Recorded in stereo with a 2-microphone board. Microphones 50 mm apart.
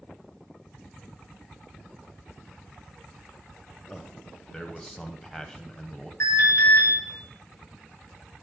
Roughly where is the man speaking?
Centre.